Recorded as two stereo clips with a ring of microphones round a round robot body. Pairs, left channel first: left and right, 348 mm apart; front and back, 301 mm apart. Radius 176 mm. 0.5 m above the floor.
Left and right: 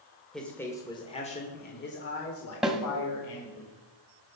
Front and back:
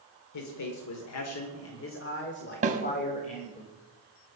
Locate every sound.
0.3 s a man speaking: straight ahead, 1.7 m; by 3.6 s 70° left, 1.9 m
2.6 s a snare drum: 175° right, 1.4 m